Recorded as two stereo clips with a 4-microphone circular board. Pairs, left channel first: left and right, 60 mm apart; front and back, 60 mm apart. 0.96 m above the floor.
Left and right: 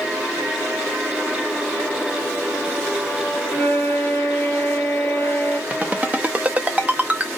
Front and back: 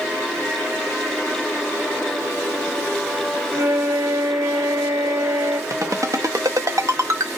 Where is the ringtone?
155° right, 0.5 m.